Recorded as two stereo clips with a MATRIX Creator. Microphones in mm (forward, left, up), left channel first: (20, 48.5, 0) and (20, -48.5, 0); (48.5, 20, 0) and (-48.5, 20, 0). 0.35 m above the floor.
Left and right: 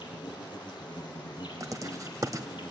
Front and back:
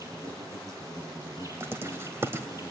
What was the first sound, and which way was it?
An insect, 125° left.